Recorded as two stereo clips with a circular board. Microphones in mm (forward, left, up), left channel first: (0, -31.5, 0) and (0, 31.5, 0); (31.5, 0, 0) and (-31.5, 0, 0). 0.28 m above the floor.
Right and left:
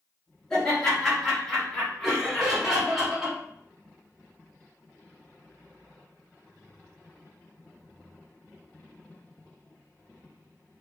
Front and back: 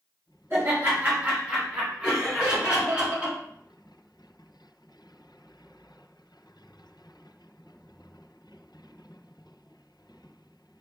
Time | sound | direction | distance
0.5 | laughter | 165° right | 1.5 m
2.0 | laughter | 160° left | 1.3 m